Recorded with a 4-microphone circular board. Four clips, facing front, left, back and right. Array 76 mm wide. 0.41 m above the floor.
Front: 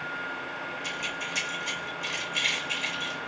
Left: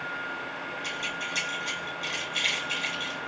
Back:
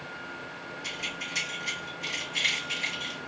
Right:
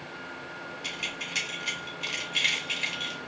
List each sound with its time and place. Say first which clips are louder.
0.8 s keys jangling: left 2 dB, even; 85° right, 2 m